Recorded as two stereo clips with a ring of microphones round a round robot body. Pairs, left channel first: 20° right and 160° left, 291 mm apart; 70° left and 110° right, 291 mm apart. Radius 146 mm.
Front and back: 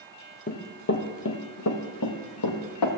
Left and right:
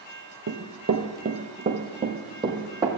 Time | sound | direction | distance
0.5 | running footsteps | 75° right | 1.3 m